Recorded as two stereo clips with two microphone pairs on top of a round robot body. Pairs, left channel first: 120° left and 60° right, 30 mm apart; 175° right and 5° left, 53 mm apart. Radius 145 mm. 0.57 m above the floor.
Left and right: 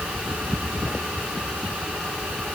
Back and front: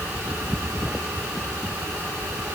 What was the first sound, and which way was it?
Only background noise.